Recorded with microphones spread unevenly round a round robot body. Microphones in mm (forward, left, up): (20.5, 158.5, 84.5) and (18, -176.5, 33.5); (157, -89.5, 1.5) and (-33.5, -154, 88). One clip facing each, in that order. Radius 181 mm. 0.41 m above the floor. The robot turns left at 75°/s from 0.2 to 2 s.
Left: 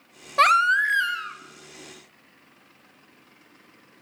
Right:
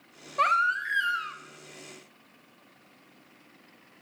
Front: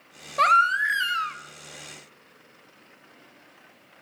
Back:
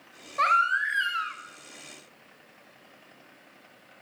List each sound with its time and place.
0.4 s a baby crying: 65° left, 0.7 m; by 1.4 s 10° right, 0.7 m